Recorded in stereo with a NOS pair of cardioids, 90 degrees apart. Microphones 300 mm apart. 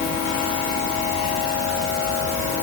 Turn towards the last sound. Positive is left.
No sound to turn to.